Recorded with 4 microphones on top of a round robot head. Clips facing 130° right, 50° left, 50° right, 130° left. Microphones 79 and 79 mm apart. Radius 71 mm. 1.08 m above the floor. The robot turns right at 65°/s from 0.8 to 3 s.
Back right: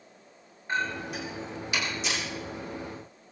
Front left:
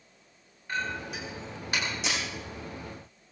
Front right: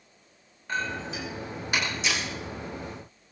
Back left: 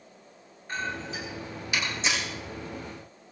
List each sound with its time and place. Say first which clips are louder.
0.7 s a clink: back right 3 dB, front right 2 dB; 60° right, 8 m; by 1.9 s 10° left, 8 m
2.0 s breaking glass: even, even; 70° left, 7 m; by 2.2 s 85° left, 7 m